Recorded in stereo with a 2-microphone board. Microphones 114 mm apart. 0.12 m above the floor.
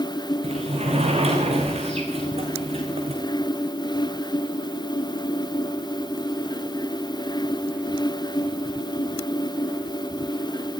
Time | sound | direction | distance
0.4 | a sliding door | 65° right (ahead or behind) | 5.5 m